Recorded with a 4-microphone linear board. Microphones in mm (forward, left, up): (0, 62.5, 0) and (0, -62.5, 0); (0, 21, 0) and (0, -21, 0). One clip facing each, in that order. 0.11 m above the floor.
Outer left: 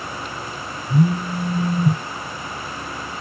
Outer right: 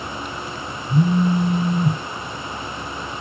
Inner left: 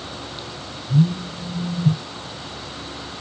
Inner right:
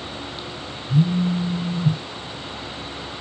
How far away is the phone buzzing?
About 1.2 m.